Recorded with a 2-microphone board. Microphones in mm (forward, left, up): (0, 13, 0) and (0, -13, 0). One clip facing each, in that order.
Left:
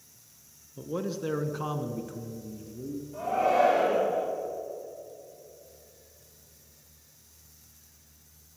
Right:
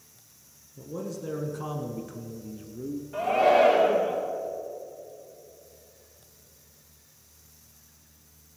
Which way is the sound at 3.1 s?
65° right (ahead or behind).